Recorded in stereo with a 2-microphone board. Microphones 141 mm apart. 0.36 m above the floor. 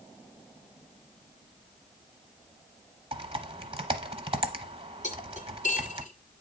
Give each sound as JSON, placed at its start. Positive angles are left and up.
{"t": 3.1, "sound": "typing on a keyboard", "side_deg": -40, "distance_m": 0.7}
{"t": 5.0, "sound": "cutlery clinking", "side_deg": 60, "distance_m": 1.6}